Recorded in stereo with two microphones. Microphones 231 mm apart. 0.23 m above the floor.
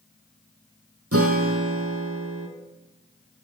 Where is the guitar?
80° right, 2.5 m.